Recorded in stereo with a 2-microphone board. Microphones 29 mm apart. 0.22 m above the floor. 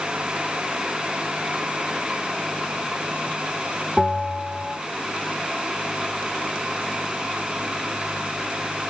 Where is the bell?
15° right (ahead or behind), 1.1 m.